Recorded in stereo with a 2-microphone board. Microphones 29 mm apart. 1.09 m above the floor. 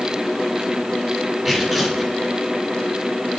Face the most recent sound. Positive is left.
turn(degrees=-15)  # may be behind; listen again after turning